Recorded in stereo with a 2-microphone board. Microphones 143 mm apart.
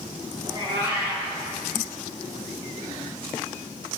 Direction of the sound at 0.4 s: 40° right (ahead or behind).